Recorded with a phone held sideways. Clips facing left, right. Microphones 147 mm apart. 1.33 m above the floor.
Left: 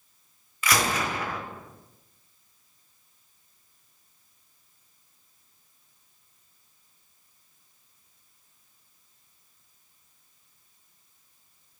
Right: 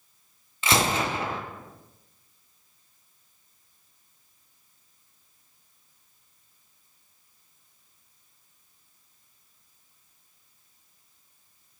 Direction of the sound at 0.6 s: 25° right (ahead or behind).